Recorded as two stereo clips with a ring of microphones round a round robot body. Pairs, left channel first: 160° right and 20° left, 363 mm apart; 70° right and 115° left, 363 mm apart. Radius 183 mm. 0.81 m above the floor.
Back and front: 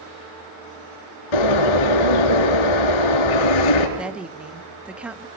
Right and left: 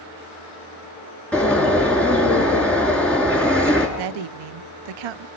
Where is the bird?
155° right, 3.5 m.